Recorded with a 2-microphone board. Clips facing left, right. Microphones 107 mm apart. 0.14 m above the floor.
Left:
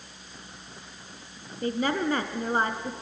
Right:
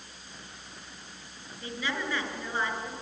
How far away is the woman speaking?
About 1.6 m.